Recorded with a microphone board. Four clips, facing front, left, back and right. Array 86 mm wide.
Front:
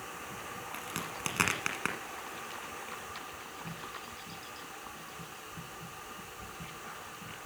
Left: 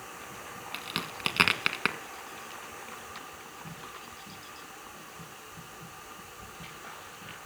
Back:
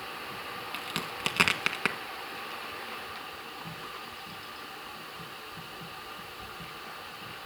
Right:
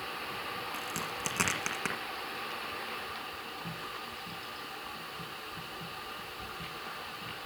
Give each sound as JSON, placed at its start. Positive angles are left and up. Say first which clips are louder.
{"t": 0.7, "sound": "a crack", "louder": "right 1 dB, back 3 dB", "azimuth_deg": 115, "distance_m": 1.4}